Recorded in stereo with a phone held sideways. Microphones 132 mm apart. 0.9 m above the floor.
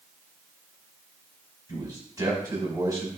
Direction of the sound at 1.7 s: 30° right (ahead or behind).